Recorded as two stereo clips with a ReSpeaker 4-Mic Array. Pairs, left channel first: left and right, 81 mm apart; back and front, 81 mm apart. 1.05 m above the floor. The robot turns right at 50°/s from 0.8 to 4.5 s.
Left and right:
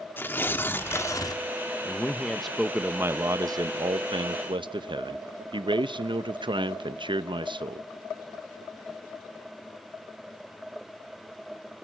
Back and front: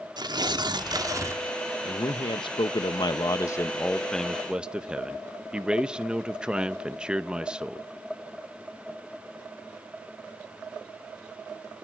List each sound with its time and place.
0.2 s tearing paper: 30° left, 1.1 m; by 1.4 s 60° left, 1.1 m
1.9 s a man speaking: 150° left, 0.7 m; by 7.9 s 80° right, 0.7 m